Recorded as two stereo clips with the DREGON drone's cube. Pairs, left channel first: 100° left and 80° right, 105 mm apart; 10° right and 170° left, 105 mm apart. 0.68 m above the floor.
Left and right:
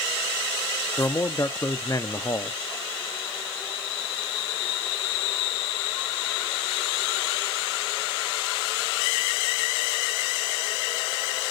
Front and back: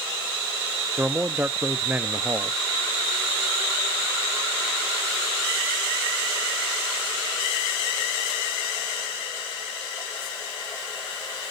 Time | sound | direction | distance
1.0 | a man speaking | 115° left | 0.5 m